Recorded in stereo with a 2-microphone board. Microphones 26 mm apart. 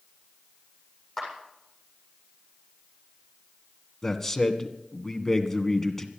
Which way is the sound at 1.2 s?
10° left (ahead or behind).